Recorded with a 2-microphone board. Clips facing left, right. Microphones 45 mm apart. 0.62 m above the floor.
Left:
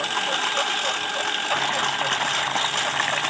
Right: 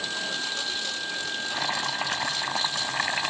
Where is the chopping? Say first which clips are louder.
Left 3 dB; 10° left (ahead or behind).